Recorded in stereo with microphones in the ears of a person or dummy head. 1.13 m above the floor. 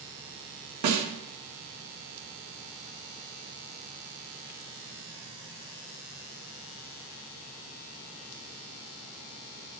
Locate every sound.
0.8 s a snare drum: 75° right (ahead or behind), 1.7 m